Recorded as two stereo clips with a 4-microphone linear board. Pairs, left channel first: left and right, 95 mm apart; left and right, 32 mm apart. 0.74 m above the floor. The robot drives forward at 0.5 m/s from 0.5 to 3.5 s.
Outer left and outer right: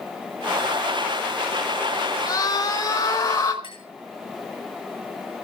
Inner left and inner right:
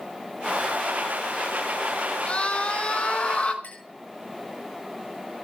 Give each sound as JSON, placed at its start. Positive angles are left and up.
{"t": 2.3, "sound": "a scream", "side_deg": 40, "distance_m": 3.5}
{"t": 3.6, "sound": "a clink", "side_deg": 60, "distance_m": 8.0}